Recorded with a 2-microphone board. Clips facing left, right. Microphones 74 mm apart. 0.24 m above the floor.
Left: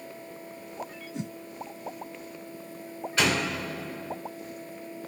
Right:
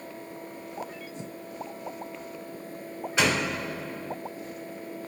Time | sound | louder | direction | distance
1.1 | a whoosh | left 7 dB | 90° left | 0.5 m
3.2 | a door slam | right 1 dB | 15° right (ahead or behind) | 2 m